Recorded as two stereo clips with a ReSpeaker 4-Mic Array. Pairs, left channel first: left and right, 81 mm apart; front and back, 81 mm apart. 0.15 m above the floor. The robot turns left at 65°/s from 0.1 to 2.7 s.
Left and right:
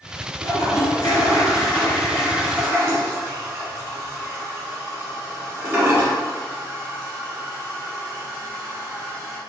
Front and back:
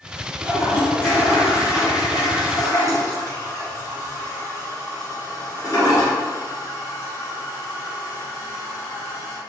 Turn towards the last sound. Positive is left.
turn(degrees=-35)